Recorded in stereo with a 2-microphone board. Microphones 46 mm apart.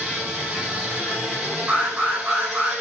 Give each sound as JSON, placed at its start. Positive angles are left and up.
{"t": 0.0, "sound": "an insect", "side_deg": -10, "distance_m": 6.0}
{"t": 1.7, "sound": "an alarm", "side_deg": -20, "distance_m": 4.0}